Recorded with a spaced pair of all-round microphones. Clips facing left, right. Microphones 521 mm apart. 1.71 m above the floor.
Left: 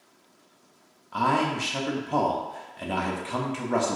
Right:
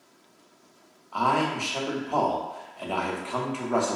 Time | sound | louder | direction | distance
1.1 | a man speaking | left 1 dB | 40° left (ahead or behind) | 0.6 m